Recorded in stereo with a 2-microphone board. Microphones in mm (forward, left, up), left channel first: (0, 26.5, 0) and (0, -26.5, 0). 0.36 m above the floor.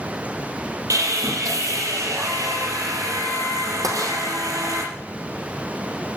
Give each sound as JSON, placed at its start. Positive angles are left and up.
{"t": 0.9, "sound": "sawing", "side_deg": -65, "distance_m": 5.0}
{"t": 3.8, "sound": "tapping", "side_deg": -75, "distance_m": 3.0}